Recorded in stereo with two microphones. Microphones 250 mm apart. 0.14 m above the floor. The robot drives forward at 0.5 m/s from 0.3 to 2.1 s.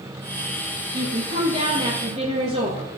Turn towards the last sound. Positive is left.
turn(degrees=-25)  # may be behind; listen again after turning